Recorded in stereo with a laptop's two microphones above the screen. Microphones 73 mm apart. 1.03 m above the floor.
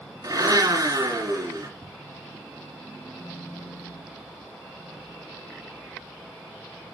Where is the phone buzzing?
75° right (ahead or behind), 1.9 m.